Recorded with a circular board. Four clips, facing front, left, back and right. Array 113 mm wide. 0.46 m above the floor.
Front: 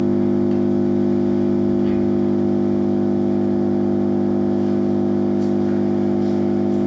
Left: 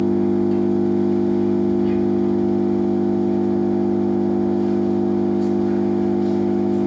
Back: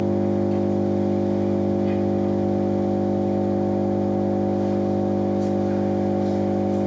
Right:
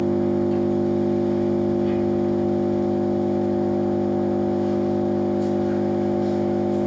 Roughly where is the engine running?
Ahead.